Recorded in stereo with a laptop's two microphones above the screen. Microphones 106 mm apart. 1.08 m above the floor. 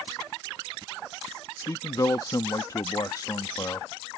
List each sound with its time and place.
1.6 s a man speaking: 35° left (ahead or behind)